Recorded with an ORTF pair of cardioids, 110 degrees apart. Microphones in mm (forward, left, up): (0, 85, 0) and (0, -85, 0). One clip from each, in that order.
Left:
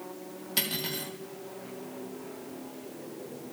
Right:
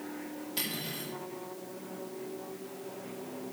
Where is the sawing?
I don't hear sawing.